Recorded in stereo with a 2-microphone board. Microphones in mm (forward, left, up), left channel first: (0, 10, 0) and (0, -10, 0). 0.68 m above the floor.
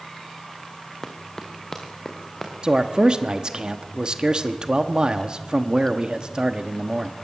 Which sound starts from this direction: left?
Running footsteps, at 1.0 s.